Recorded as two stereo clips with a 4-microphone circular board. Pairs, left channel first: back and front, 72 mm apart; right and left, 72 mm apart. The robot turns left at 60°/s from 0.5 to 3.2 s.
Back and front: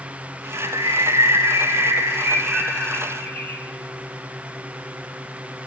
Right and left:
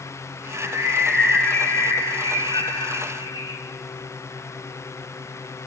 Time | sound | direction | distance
0.5 | a bird | 45° left | 3 m